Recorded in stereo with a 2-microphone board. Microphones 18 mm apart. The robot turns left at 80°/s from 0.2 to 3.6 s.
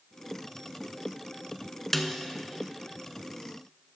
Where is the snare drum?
10° left (ahead or behind), 0.7 m; by 2.1 s 25° left (ahead or behind), 0.7 m.